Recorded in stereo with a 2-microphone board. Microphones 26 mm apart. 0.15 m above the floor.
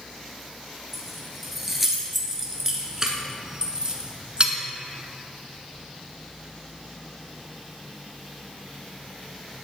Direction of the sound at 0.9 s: Centre (ahead or behind).